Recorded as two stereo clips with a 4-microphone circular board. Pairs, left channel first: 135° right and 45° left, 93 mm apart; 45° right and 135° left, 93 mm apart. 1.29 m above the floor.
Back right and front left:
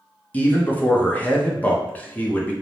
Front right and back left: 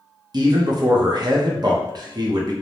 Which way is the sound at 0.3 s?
155° left.